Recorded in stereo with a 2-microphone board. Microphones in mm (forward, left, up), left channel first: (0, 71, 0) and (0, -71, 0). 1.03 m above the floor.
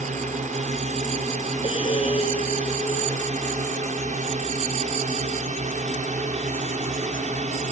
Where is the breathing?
40° left (ahead or behind).